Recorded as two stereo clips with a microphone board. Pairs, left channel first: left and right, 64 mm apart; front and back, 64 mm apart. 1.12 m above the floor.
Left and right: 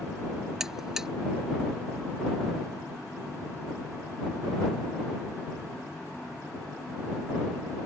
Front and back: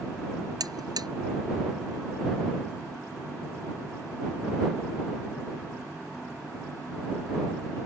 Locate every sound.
0.6 s a buzzer: 170° right